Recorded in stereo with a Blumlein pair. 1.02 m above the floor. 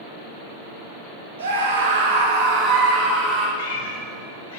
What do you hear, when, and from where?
1.4 s a scream: 65° right, 1.5 m; by 3.5 s 20° right, 2 m
3.6 s a cat meowing: 50° left, 1.0 m